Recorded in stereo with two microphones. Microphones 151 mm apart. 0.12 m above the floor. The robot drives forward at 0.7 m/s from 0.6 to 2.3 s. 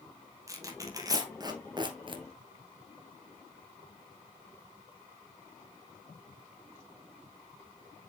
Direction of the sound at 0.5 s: 20° right (ahead or behind).